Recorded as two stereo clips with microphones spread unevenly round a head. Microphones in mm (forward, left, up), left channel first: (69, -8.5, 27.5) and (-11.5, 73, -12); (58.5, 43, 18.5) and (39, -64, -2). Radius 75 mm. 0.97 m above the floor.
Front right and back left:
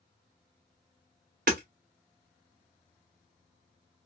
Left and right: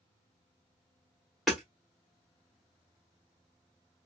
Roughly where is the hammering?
Behind.